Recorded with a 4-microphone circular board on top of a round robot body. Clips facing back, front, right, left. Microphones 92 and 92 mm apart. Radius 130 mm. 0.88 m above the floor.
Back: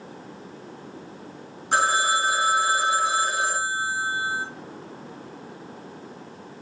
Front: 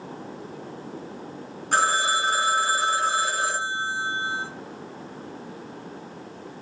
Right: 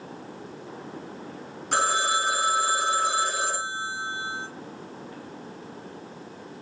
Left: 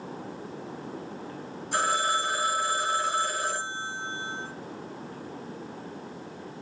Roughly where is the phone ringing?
Right.